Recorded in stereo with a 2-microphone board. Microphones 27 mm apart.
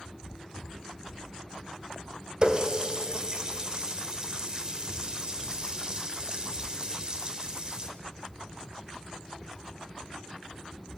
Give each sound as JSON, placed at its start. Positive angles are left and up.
{"t": 2.4, "sound": "a running tap", "side_deg": -35, "distance_m": 1.8}